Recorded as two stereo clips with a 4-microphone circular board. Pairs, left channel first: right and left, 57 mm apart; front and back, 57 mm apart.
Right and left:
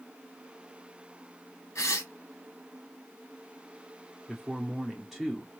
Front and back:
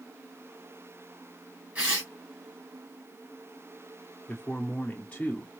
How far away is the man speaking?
About 0.9 m.